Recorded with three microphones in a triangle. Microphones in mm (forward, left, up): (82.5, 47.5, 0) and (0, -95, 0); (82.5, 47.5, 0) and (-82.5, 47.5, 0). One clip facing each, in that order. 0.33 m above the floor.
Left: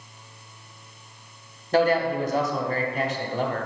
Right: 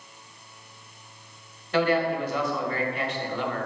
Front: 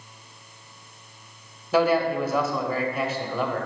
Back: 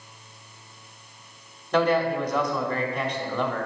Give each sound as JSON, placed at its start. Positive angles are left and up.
{"t": 1.7, "sound": "a man speaking", "azimuth_deg": 80, "distance_m": 1.1}